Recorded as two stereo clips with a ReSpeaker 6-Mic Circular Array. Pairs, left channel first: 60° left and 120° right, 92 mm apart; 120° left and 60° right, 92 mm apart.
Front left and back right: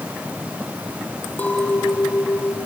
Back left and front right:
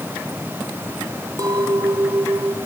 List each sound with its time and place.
1.4 s a clink: 15° right, 3 m